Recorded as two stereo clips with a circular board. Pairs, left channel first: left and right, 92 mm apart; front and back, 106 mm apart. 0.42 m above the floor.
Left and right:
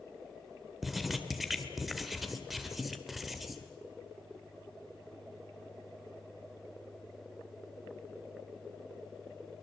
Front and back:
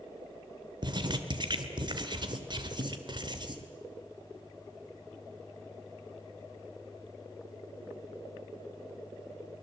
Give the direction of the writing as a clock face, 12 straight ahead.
6 o'clock.